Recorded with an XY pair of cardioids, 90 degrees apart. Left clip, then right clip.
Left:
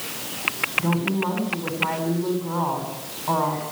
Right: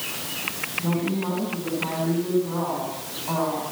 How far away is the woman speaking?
About 8 m.